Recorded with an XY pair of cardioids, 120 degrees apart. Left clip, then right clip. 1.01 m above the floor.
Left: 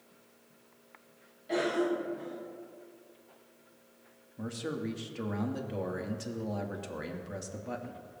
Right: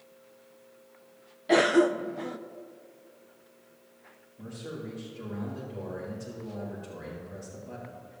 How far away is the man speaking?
About 1.5 m.